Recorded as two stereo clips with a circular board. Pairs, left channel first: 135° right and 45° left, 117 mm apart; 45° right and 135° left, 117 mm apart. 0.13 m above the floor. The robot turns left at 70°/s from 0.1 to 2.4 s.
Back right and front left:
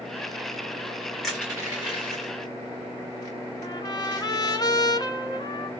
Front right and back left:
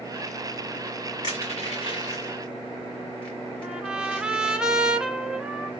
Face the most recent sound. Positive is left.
turn(degrees=-150)